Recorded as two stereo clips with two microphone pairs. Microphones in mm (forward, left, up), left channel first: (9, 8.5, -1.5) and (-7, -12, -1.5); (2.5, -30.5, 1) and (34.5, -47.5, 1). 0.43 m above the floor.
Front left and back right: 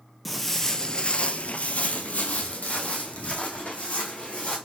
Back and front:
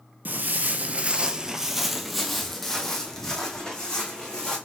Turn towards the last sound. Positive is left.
turn(degrees=85)